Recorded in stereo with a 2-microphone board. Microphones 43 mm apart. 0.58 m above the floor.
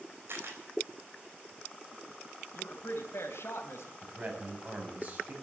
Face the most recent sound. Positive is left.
turn(degrees=-40)  # may be behind; listen again after turning